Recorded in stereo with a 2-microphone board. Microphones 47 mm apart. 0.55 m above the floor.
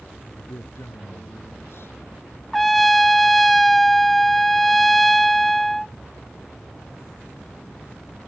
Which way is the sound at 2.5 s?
5° left (ahead or behind).